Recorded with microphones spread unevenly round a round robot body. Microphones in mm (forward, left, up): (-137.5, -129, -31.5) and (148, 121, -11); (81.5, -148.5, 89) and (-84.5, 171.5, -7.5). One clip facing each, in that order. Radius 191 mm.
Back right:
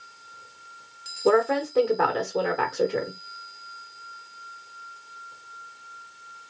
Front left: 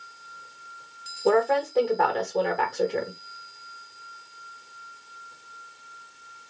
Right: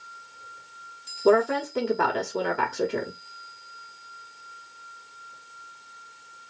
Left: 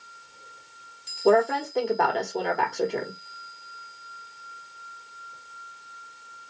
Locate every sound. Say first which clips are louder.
1.2 s a woman speaking: back right 1 dB, even; 155° right, 0.9 m